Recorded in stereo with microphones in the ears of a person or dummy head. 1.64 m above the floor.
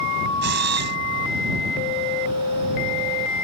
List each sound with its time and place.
0.4 s a camera shutter: 55° right (ahead or behind)